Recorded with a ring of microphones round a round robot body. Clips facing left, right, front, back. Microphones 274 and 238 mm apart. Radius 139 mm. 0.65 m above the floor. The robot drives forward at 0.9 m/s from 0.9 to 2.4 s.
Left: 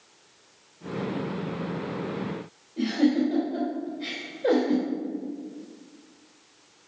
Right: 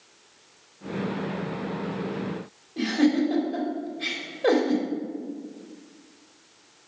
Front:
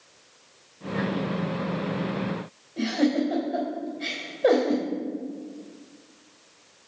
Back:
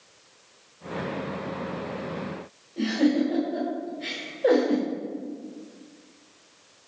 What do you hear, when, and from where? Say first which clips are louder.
2.8 s a giggle: right 1 dB, back 1 dB; 90° right, 3 m